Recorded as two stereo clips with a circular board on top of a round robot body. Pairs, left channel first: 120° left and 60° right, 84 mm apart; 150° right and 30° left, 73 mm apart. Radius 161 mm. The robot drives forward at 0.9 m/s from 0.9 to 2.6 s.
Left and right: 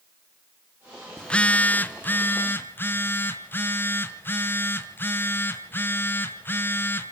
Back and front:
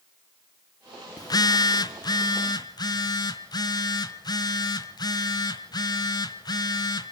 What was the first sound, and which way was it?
A phone buzzing, 160° right.